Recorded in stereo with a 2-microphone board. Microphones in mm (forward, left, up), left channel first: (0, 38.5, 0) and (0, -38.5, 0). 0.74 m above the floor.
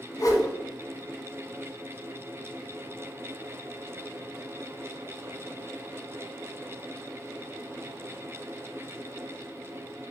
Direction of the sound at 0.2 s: 50° left (ahead or behind).